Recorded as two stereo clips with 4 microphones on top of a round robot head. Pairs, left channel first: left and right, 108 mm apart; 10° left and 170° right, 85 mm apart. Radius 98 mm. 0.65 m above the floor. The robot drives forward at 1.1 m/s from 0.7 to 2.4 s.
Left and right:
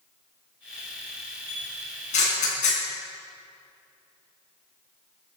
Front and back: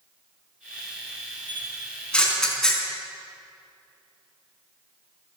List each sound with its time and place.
1.5 s a camera shutter: 80° left, 5 m; by 2.8 s 90° left, 5 m